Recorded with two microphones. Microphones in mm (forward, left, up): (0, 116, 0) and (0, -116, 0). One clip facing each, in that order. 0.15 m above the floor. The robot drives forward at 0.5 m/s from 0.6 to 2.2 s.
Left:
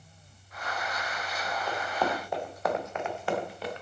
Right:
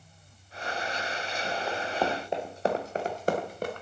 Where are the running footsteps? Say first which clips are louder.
Even; 10° right (ahead or behind), 3 m; by 3.8 s 50° right (ahead or behind), 2.5 m.